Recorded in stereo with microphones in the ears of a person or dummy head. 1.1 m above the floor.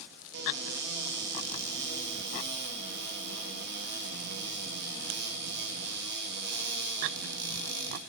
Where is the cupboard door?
60° right (ahead or behind), 1.7 m.